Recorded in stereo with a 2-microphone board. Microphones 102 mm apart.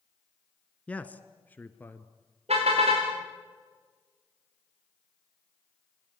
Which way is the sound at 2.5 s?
85° right.